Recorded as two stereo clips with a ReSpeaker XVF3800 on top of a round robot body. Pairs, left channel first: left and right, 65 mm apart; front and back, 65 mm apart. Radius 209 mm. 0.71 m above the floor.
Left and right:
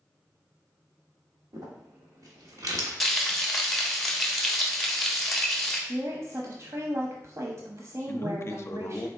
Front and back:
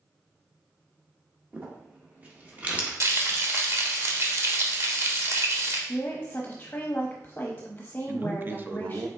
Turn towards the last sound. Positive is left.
turn(degrees=130)